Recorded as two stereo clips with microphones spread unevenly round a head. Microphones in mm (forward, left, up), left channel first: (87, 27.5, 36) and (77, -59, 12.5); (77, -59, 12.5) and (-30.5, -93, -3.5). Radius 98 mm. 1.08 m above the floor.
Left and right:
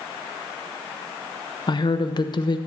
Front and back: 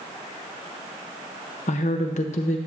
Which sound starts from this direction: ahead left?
A woman speaking, at 1.7 s.